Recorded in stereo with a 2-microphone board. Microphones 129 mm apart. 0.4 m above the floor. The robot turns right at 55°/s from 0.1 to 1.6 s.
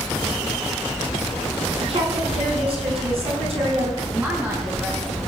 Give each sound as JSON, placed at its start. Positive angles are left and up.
{"t": 1.8, "sound": "a woman speaking", "side_deg": -50, "distance_m": 4.5}
{"t": 4.1, "sound": "a woman speaking", "side_deg": -10, "distance_m": 4.5}